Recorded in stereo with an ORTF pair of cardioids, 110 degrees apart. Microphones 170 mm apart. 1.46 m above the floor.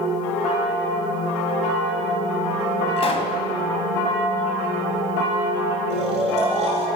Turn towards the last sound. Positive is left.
turn(degrees=-45)